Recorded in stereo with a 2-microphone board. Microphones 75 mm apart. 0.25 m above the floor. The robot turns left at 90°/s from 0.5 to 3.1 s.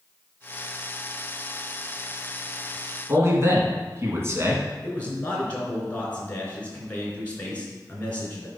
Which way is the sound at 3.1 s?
40° right (ahead or behind).